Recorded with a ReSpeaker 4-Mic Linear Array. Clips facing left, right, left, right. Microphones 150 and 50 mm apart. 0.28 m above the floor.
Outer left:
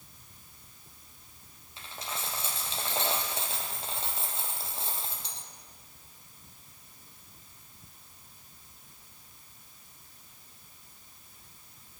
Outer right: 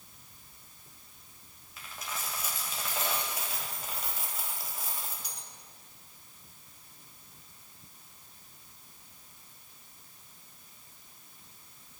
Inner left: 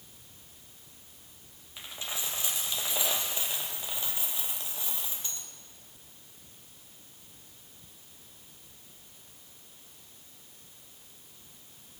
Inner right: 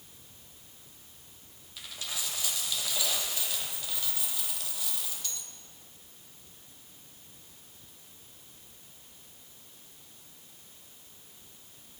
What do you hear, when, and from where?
1.8 s a dropped coin: 30° left (ahead or behind), 3 m